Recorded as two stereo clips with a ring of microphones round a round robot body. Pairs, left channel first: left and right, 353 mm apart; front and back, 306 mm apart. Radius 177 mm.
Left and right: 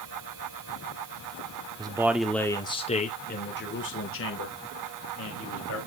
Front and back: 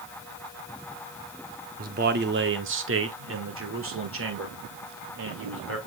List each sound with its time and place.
1.8 s a man speaking: 155° right, 1.1 m; by 5.8 s 135° left, 3 m